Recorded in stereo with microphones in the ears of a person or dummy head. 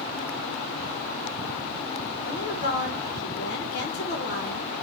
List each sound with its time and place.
2.2 s a woman speaking: 55° left (ahead or behind), 1.6 m